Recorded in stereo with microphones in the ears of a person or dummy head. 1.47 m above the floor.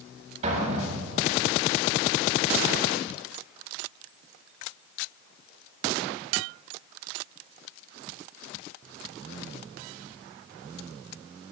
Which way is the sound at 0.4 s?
40° right (ahead or behind).